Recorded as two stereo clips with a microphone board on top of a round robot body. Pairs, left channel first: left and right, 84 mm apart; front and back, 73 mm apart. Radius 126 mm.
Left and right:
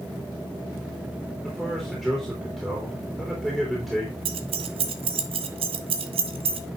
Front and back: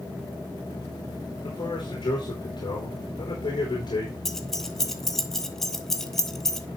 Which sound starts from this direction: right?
Keys jangling, at 4.2 s.